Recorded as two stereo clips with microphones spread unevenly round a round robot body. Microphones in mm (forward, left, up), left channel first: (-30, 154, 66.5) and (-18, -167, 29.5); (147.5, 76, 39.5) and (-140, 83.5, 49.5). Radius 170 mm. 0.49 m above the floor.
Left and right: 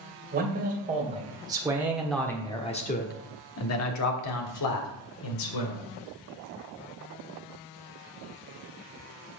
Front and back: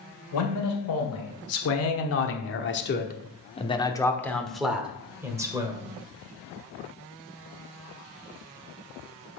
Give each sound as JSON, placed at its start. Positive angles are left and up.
{"t": 0.3, "sound": "a man speaking", "azimuth_deg": -30, "distance_m": 2.5}